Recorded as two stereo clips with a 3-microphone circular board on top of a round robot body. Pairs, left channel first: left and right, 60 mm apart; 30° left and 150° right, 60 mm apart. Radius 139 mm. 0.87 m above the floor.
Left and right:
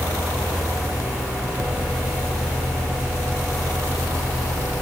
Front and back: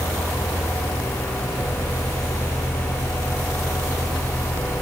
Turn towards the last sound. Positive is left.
No sound to turn to.